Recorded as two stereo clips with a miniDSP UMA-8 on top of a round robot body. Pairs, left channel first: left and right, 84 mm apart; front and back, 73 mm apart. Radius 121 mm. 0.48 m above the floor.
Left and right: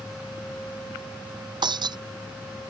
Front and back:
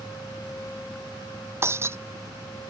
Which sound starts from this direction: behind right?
Breaking glass, at 1.6 s.